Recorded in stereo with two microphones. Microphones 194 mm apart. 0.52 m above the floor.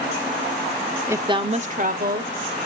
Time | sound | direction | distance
1.1 | a woman speaking | 10° right (ahead or behind) | 0.8 m